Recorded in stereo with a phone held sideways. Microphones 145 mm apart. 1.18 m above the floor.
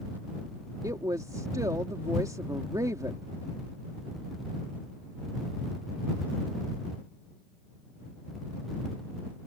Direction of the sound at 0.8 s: 25° right (ahead or behind).